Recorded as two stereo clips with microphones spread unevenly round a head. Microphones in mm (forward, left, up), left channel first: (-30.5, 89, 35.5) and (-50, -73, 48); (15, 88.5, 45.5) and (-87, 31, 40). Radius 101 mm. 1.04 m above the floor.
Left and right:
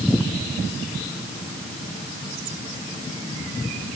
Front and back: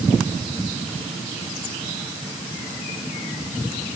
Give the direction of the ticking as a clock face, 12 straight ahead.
No ticking in this recording.